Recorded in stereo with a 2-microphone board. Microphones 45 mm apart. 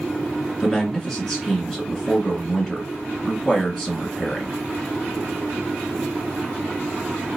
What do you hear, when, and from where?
0.6 s a man speaking: centre (ahead or behind), 2.0 m